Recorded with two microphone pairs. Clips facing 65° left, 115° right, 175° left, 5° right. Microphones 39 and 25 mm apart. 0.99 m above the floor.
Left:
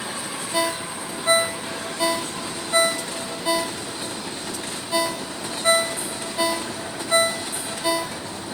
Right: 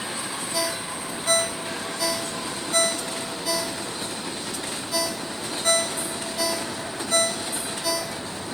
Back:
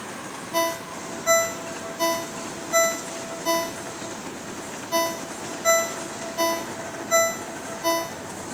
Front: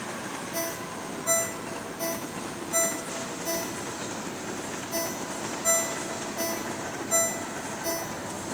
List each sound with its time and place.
0.5 s a ringtone: 125° left, 0.7 m